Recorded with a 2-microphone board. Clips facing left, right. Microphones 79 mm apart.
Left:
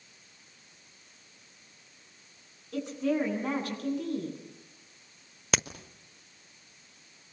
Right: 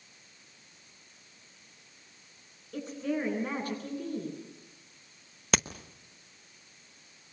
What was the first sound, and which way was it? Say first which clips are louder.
A woman speaking: left 4 dB; 70° left (ahead or behind).